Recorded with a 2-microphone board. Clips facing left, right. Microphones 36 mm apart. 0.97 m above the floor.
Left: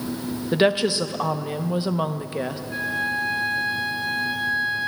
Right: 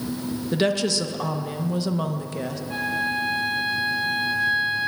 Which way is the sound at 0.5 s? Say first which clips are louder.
Left 3 dB; 25° left (ahead or behind).